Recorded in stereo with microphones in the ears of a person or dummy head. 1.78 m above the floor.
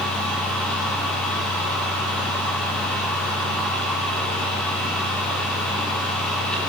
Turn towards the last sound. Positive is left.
turn(degrees=5)  # may be behind; listen again after turning